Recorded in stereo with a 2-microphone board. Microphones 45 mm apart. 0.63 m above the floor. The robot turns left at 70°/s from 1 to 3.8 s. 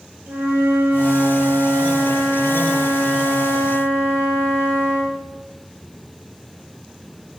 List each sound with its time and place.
0.3 s a flute: 45° right, 3 m; by 5.2 s 120° left, 3 m